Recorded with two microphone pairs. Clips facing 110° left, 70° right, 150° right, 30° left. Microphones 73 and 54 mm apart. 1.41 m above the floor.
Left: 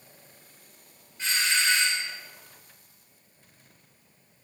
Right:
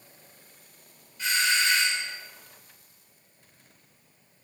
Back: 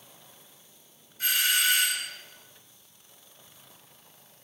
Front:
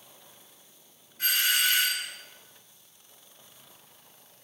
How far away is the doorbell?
About 2.5 m.